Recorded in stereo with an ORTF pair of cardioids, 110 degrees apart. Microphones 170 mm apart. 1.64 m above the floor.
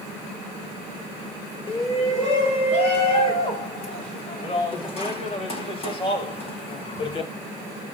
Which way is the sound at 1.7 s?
35° left.